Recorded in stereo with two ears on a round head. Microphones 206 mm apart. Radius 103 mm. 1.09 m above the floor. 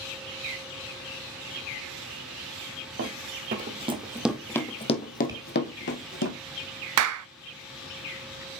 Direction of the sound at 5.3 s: 15° right (ahead or behind).